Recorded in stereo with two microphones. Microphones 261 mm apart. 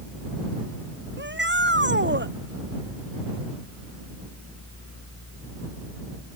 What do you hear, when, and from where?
1.2 s a shout: 45° right (ahead or behind)